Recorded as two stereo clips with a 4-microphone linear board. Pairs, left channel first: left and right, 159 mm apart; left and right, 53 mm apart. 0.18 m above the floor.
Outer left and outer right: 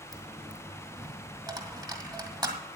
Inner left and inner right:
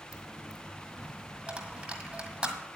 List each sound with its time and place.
0.1 s a dropped coin: 25° right (ahead or behind), 1.6 m